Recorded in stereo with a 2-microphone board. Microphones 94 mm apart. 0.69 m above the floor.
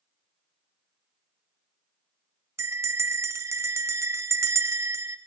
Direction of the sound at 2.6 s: 30° right (ahead or behind).